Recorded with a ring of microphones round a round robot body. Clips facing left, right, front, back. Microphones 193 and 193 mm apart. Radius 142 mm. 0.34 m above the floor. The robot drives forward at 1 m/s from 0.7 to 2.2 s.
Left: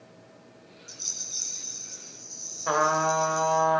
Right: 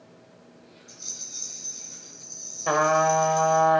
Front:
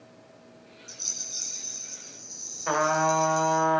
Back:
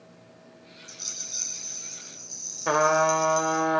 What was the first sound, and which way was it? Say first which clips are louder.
A rattle: even, even; 90° left.